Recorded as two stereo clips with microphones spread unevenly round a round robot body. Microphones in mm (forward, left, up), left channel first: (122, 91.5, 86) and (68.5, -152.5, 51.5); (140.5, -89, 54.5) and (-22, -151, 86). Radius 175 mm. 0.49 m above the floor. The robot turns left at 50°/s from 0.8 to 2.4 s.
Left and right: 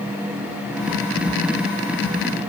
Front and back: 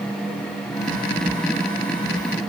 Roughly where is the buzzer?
No buzzer in this recording.